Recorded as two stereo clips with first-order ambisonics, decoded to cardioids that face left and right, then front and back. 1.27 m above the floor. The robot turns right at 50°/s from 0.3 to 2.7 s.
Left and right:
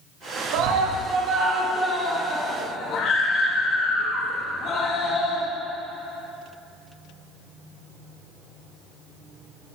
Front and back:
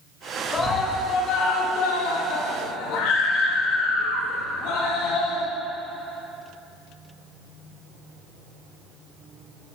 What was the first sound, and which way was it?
A scream, 75° right.